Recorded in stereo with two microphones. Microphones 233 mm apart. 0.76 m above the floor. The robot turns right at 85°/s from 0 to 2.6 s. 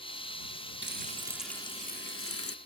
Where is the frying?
55° right; by 2.5 s 95° left.